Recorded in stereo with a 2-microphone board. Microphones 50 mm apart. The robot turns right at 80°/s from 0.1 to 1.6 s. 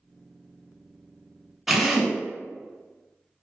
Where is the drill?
5° right (ahead or behind), 0.8 m.